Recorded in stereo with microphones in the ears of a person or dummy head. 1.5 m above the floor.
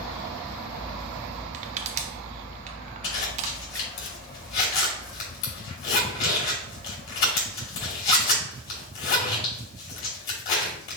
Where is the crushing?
40° right (ahead or behind), 0.6 m.